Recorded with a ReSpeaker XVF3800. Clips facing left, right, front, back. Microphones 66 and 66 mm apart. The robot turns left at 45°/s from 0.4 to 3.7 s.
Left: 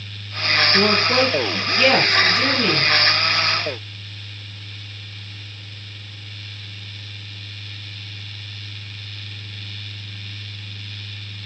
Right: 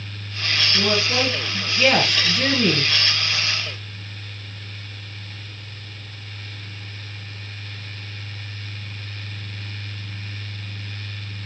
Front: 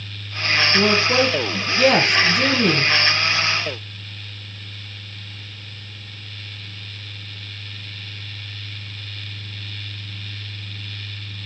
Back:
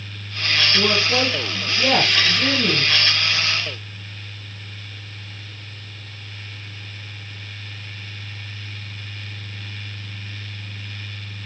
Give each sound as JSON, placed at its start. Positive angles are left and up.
{"t": 0.7, "sound": "a woman speaking", "azimuth_deg": 60, "distance_m": 2.0}